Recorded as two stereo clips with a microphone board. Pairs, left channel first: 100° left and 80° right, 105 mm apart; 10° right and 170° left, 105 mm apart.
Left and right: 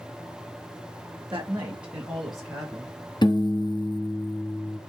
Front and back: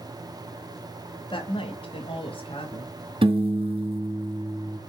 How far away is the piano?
About 1.3 m.